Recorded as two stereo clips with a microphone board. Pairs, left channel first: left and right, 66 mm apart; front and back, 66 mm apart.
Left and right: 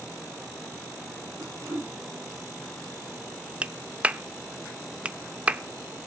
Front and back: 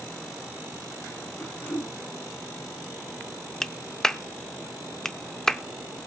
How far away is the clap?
About 0.5 m.